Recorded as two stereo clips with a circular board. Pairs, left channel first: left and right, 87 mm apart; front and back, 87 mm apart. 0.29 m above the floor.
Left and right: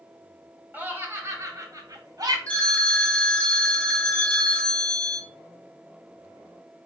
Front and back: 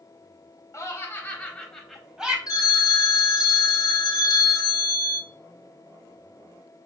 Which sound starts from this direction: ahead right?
Laughter, at 0.7 s.